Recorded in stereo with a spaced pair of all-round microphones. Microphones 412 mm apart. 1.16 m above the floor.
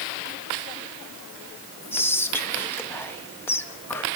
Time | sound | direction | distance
1.9 | whispering | 5° left (ahead or behind) | 0.6 m